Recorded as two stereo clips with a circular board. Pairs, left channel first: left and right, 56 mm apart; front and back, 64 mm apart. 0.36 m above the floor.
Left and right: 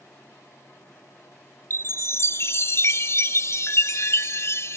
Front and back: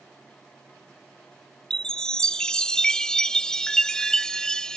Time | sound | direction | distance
1.7 | a chime | 75° left | ?